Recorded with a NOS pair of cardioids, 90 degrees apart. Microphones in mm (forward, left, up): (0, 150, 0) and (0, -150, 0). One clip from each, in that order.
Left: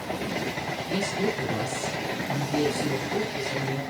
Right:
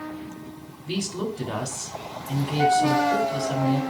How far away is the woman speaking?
About 3 m.